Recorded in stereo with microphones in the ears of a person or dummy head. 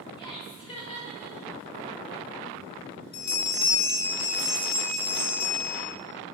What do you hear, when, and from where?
0.2 s laughter: 20° left (ahead or behind), 4.5 m; by 1.6 s 30° left (ahead or behind), 5 m
3.1 s a bell: 60° left (ahead or behind), 3.5 m